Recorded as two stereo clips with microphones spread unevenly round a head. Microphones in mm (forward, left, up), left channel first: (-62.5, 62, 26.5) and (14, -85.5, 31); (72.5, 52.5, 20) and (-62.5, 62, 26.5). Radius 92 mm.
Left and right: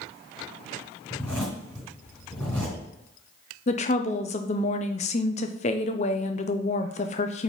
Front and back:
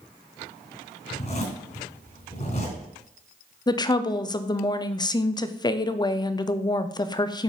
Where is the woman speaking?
60° left, 0.6 m.